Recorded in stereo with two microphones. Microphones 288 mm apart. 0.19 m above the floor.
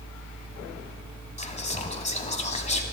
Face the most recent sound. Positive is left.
turn(degrees=25)  # may be behind; listen again after turning